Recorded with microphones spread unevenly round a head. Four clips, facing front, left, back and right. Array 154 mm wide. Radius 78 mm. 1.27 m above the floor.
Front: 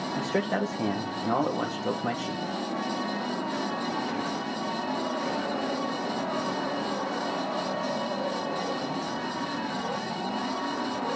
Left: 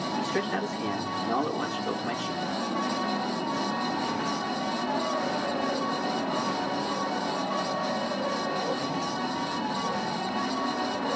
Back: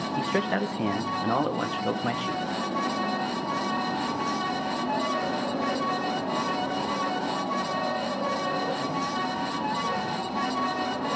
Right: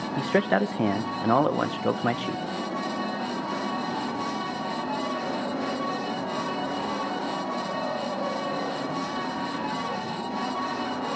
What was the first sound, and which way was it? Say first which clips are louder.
A man speaking: right 8 dB, back 1 dB; 85° right.